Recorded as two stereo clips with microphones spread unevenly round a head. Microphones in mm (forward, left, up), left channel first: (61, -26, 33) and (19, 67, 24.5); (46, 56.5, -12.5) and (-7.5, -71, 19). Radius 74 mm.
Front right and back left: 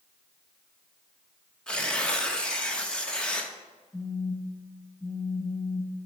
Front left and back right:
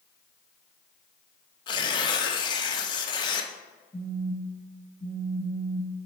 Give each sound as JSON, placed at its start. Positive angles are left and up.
{"t": 1.7, "sound": "tearing paper", "azimuth_deg": 5, "distance_m": 1.0}
{"t": 3.9, "sound": "a phone buzzing", "azimuth_deg": 10, "distance_m": 1.3}